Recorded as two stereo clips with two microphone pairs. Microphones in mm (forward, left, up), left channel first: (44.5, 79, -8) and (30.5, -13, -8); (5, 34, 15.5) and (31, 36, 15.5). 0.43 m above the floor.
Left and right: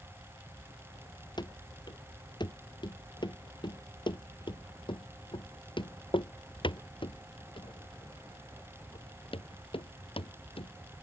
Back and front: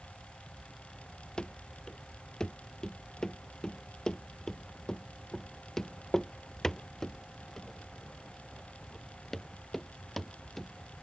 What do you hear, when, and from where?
1.4 s running footsteps: 125° left; by 10.7 s 100° left